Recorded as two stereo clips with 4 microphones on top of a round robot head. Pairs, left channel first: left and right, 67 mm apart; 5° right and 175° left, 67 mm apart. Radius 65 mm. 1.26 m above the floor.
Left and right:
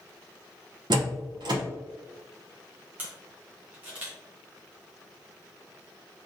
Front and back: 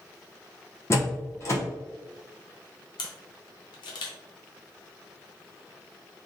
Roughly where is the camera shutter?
Ahead.